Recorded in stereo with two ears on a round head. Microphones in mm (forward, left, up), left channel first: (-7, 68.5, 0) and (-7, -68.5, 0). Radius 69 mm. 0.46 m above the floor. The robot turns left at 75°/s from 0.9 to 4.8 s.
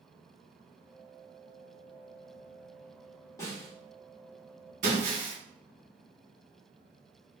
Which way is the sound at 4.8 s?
55° right (ahead or behind).